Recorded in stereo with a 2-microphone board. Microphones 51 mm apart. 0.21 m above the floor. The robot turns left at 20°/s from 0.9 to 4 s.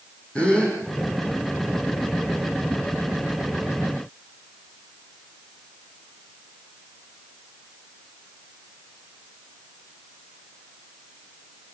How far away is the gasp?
About 7.5 m.